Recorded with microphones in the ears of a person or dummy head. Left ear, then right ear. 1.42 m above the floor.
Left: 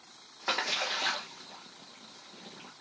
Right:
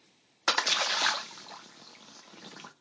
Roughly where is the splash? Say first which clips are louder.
Right 4 dB; right.